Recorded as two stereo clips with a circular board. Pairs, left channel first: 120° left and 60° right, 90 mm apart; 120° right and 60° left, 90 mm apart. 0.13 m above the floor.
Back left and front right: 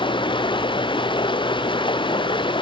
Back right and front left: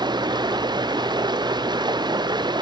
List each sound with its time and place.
0.0 s running water: 95° left